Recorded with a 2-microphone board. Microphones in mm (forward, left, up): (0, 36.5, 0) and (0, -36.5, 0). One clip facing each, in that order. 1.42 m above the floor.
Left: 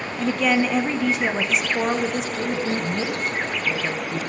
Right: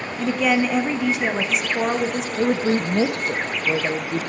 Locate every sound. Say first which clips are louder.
0.2 s a woman speaking: right 1 dB; 5° right (ahead or behind), 0.7 m
2.4 s a woman speaking: right 8 dB; 60° right (ahead or behind), 0.5 m